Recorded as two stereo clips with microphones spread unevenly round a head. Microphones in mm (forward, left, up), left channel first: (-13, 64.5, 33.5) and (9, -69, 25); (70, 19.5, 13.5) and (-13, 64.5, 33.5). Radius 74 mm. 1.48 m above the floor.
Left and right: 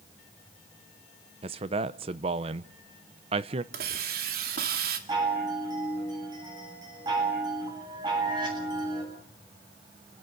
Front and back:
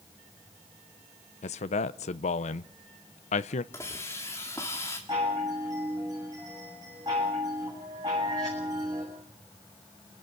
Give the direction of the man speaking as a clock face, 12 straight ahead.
1 o'clock.